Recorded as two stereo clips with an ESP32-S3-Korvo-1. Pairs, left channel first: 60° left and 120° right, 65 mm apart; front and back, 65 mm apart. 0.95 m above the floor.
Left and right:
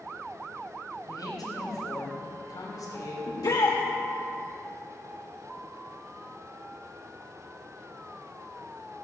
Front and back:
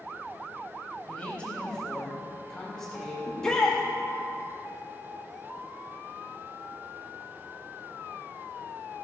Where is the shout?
80° left, 1.1 m.